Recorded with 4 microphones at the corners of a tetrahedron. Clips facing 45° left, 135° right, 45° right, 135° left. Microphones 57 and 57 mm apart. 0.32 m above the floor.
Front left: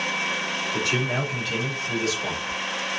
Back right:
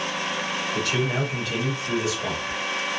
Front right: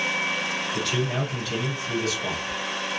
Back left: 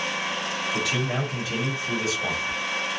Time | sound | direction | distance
0.7 | a man speaking | 85° left | 1.3 m